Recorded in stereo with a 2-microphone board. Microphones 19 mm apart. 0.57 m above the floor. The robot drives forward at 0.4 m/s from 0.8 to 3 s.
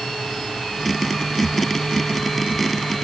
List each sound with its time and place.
Only background noise.